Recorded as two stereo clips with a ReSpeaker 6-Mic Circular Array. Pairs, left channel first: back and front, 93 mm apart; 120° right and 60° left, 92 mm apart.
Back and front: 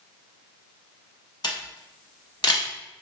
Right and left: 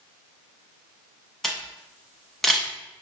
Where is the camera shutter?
155° left, 0.7 m.